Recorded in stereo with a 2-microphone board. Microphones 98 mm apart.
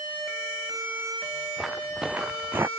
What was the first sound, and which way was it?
Footsteps, 5° right (ahead or behind).